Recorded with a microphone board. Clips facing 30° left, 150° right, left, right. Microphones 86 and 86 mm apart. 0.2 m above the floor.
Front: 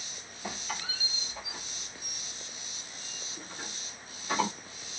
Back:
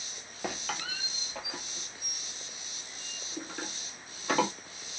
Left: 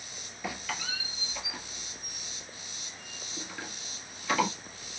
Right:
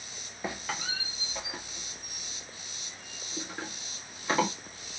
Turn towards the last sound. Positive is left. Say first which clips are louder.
# back 2 dB, right 1 dB
turn(degrees=-150)